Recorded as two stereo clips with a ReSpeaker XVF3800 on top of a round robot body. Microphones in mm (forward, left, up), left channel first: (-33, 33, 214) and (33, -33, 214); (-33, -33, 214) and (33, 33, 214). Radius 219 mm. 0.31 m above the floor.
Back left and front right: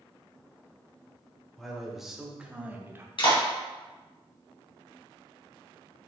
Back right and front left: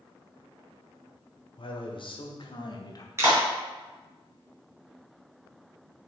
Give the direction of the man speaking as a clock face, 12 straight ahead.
5 o'clock.